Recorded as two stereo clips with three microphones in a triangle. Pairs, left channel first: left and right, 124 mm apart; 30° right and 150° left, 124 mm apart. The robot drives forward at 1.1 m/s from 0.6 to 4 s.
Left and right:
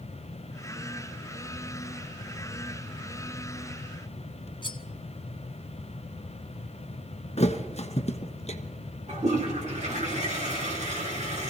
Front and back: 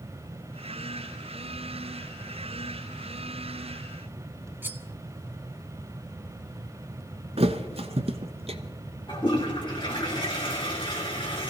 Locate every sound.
4.6 s cutlery clinking: 85° left, 0.9 m
7.4 s a thud: 115° left, 0.8 m
9.1 s a toilet flushing: 75° right, 3.5 m